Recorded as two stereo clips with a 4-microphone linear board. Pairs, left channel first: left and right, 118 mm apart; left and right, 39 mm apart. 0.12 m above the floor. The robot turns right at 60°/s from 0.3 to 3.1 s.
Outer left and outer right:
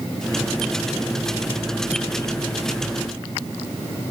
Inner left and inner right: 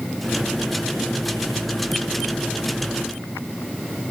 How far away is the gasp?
I don't hear a gasp.